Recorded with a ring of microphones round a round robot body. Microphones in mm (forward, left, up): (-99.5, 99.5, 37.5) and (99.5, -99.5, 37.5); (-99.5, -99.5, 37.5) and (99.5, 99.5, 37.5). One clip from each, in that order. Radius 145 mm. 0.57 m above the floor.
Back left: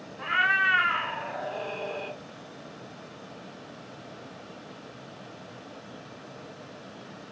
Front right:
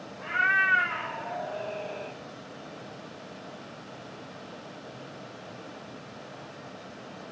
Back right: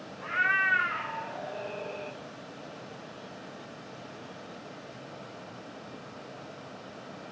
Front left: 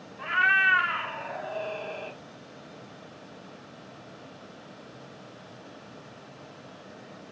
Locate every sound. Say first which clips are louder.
0.2 s a cat meowing: back left 1 dB, front left 4 dB; 80° left, 0.8 m